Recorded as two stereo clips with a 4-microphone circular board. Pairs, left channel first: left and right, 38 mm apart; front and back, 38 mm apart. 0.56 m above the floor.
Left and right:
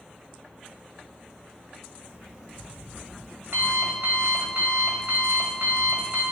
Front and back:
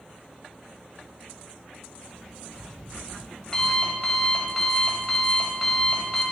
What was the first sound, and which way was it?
An alarm clock, 70° right.